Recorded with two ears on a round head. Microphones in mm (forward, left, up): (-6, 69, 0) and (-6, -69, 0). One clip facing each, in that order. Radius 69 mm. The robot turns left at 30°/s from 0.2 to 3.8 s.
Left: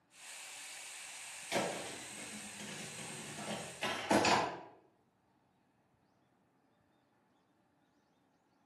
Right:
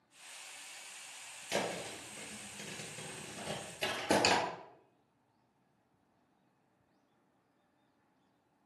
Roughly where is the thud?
Right.